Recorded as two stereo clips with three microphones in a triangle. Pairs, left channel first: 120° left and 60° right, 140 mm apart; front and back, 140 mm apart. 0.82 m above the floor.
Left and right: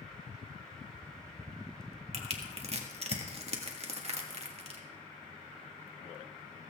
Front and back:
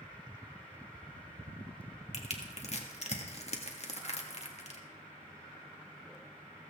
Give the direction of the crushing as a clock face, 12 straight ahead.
1 o'clock.